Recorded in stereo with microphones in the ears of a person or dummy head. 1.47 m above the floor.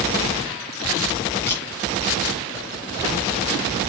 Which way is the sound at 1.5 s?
10° left (ahead or behind).